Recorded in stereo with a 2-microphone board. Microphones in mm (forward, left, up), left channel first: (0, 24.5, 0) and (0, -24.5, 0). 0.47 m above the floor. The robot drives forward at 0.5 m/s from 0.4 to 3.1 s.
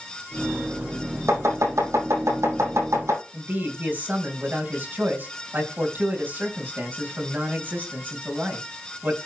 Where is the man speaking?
45° right (ahead or behind), 3.5 m.